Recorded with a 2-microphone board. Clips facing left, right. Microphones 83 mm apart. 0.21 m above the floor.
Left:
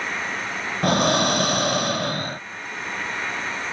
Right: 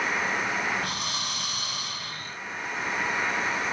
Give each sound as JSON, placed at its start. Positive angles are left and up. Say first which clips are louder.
{"t": 0.8, "sound": "breathing", "louder": "left 14 dB", "side_deg": 80}